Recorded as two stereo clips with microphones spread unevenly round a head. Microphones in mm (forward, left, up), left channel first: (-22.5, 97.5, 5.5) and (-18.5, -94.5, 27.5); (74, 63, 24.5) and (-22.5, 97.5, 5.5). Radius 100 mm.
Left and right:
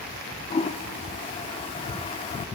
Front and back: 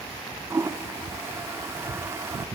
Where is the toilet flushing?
115° left, 0.6 m.